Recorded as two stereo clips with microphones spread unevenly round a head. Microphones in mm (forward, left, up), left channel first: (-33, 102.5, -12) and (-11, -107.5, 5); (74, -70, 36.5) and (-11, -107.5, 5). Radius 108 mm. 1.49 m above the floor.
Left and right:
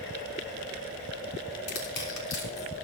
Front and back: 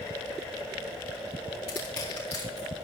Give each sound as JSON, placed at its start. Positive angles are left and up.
{"t": 1.7, "sound": "crushing", "azimuth_deg": 80, "distance_m": 3.5}